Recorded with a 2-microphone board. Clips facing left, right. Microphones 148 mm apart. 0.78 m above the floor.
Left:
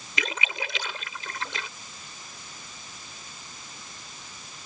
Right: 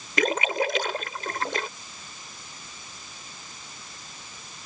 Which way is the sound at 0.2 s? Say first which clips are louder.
Right 9 dB; 50° right (ahead or behind).